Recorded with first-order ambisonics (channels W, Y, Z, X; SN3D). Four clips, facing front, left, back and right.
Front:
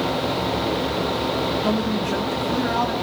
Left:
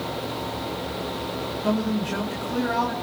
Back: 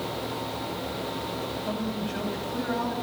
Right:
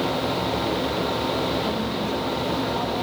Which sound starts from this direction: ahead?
A man speaking, at 1.6 s.